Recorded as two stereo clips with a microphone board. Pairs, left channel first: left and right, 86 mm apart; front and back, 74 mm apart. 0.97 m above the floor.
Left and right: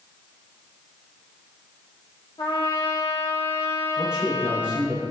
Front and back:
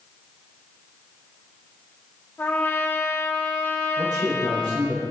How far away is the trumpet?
About 1.8 m.